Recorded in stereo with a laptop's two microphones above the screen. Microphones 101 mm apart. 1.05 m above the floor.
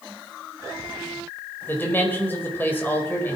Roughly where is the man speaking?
Centre.